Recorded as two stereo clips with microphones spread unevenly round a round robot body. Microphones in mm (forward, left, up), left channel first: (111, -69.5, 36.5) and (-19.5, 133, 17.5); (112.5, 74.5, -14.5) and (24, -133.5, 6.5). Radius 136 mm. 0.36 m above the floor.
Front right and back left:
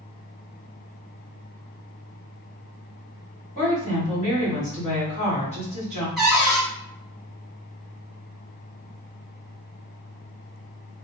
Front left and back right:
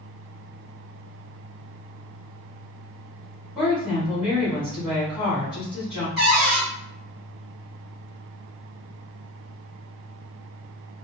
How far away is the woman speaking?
About 1.6 m.